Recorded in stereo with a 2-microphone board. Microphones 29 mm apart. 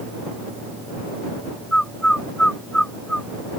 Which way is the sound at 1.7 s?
30° left (ahead or behind).